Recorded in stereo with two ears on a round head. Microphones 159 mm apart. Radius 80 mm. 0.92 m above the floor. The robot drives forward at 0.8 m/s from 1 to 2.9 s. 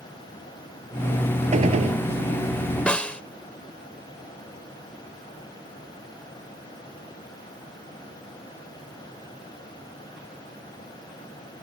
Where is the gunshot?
40° right (ahead or behind); by 2.0 s 35° right (ahead or behind).